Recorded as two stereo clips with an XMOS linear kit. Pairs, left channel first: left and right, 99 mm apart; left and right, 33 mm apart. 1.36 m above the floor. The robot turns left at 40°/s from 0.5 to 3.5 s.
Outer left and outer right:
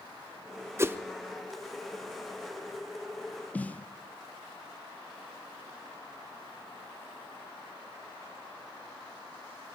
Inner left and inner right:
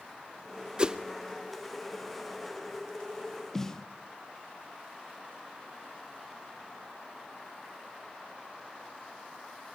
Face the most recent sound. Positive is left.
turn(degrees=15)  # may be behind; listen again after turning